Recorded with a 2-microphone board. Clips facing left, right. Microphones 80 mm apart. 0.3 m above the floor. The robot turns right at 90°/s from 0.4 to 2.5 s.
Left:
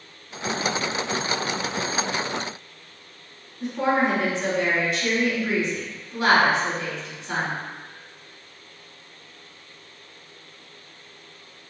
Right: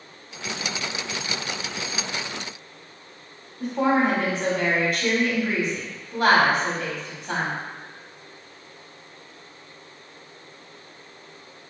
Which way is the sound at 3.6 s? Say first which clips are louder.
Right 1 dB; 50° right (ahead or behind).